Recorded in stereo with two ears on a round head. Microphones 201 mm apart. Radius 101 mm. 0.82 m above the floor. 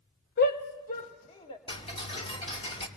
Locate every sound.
0.4 s a shout: 45° left (ahead or behind), 0.6 m; by 1.6 s 25° left (ahead or behind), 1.5 m
1.7 s ticking: 25° left (ahead or behind), 2 m